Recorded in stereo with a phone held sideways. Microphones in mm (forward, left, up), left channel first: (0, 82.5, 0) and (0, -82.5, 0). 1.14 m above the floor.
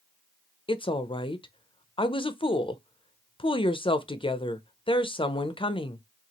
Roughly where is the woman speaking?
Left.